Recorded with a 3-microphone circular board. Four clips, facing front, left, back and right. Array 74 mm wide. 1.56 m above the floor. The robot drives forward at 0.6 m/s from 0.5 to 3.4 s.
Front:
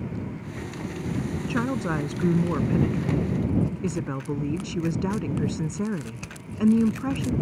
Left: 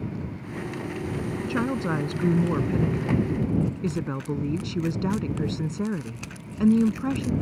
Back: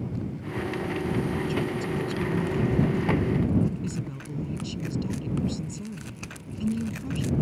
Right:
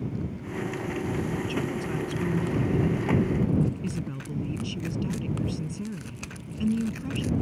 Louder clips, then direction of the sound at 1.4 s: Left 4 dB, front 2 dB; 40° left.